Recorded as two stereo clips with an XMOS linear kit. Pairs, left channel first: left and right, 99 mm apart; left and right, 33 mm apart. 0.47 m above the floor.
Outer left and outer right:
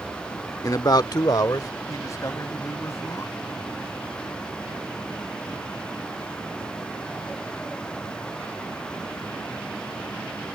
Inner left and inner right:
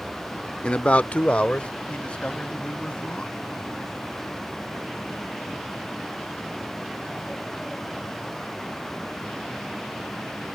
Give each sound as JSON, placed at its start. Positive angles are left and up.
{"t": 0.6, "sound": "a man speaking", "side_deg": 35}